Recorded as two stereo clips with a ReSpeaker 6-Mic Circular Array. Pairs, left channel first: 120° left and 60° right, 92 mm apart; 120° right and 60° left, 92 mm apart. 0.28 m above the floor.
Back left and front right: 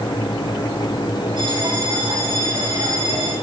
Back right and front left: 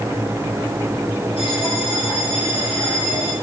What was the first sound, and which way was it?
A bell, 95° right.